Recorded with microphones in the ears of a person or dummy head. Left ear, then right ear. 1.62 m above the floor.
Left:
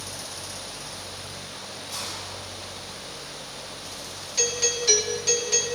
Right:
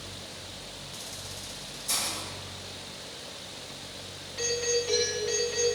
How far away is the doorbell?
About 6 m.